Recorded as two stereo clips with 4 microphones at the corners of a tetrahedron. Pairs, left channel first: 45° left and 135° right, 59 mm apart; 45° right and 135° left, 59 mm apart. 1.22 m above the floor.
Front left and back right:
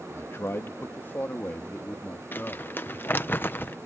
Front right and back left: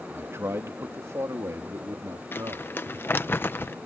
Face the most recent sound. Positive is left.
turn(degrees=-5)